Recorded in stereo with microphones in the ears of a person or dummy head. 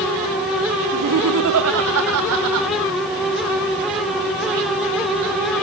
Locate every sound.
0.9 s laughter: 60° right (ahead or behind), 1.2 m; by 2.7 s 75° right (ahead or behind), 2.5 m